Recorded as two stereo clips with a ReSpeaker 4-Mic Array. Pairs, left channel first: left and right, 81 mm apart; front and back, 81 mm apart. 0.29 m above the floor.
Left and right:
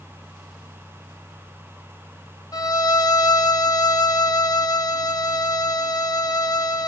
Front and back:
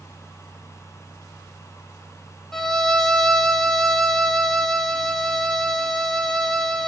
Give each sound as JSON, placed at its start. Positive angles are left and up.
{"t": 2.5, "sound": "a violin", "azimuth_deg": 80, "distance_m": 0.6}